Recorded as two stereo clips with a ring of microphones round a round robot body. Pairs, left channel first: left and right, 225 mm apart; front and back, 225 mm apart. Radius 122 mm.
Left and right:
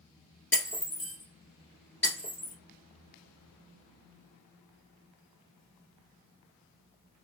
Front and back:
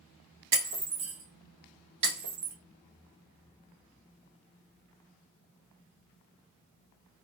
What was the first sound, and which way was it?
Breaking glass, 175° left.